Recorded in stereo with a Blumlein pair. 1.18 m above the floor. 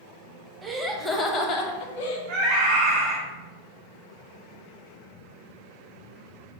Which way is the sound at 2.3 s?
40° right.